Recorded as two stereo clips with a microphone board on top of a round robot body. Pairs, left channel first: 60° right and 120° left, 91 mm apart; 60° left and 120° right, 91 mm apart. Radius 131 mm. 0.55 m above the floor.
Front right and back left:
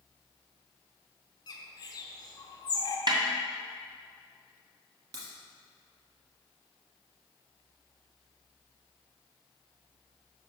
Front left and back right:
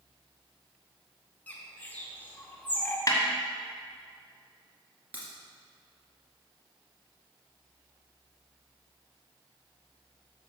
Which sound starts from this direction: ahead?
A bird, at 1.5 s.